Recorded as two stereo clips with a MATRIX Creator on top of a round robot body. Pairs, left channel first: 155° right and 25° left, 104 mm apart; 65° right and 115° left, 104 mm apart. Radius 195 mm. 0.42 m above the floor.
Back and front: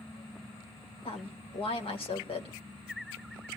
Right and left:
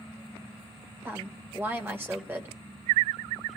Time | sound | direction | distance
1.1 | a woman speaking | straight behind | 2.5 m